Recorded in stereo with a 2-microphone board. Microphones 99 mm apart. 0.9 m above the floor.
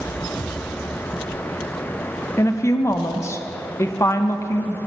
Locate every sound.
2.4 s a woman speaking: 30° left (ahead or behind), 0.6 m